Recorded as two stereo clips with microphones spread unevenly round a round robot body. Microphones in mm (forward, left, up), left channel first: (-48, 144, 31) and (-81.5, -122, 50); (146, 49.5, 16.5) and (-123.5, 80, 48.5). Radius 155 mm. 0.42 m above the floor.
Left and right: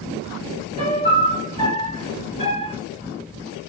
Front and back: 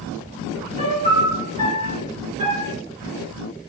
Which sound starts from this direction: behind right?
A piano, at 0.8 s.